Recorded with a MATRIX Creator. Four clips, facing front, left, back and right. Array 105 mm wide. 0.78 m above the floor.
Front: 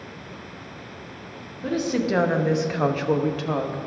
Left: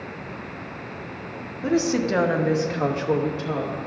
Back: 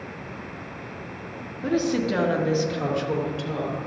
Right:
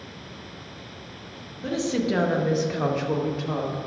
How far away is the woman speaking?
About 0.8 m.